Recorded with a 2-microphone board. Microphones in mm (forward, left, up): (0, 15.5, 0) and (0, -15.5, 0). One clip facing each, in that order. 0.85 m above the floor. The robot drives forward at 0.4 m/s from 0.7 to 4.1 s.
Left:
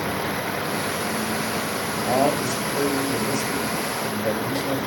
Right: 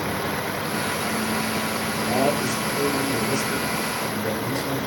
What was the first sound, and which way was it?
A man speaking, 75° left (ahead or behind).